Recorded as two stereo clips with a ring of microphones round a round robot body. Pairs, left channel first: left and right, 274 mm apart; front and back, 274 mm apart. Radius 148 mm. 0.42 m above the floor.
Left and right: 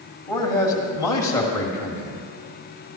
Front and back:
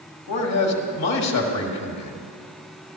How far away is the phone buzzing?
I don't hear a phone buzzing.